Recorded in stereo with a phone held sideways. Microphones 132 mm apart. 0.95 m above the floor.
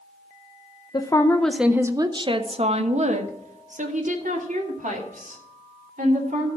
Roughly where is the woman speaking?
Left.